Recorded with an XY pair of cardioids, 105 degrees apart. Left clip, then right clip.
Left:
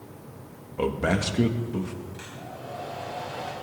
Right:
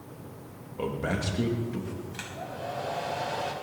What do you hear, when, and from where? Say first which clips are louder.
0.8 s a man speaking: left 5 dB; 40° left, 2 m
2.1 s a hair dryer: right 3 dB; 60° right, 5 m